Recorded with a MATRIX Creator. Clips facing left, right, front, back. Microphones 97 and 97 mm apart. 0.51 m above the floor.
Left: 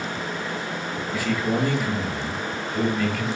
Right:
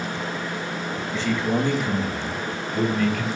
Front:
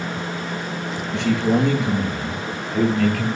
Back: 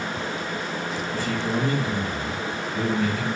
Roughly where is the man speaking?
Ahead.